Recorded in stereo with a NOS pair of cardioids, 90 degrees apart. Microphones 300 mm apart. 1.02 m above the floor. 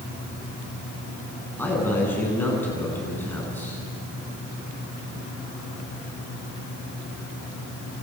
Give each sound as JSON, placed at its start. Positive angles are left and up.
{"t": 1.6, "sound": "a man speaking", "azimuth_deg": 5, "distance_m": 8.5}